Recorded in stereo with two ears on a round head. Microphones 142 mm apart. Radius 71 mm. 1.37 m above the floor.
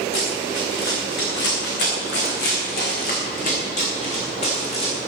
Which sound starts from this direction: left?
Running footsteps, at 0.1 s.